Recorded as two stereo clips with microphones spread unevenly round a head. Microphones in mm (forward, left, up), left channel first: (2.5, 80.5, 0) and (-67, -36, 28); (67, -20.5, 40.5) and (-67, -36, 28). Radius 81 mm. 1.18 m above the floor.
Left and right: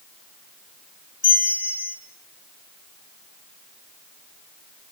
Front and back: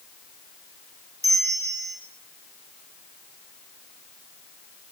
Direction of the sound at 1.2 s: 120° left.